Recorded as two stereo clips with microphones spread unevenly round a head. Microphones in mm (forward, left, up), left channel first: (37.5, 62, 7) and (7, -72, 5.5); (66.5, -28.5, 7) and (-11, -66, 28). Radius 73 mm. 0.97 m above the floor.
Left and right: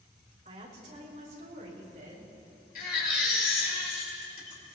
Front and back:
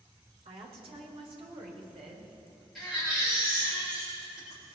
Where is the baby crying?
115° left, 2.5 m.